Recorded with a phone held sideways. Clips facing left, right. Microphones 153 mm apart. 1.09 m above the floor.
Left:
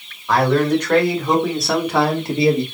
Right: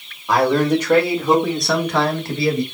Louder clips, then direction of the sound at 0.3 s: Even; 15° right (ahead or behind).